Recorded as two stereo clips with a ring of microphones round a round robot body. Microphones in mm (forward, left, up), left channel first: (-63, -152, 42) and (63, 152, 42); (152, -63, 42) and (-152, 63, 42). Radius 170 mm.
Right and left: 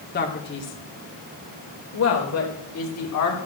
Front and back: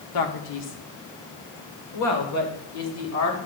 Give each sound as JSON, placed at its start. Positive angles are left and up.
{"t": 0.1, "sound": "a man speaking", "azimuth_deg": -50, "distance_m": 1.8}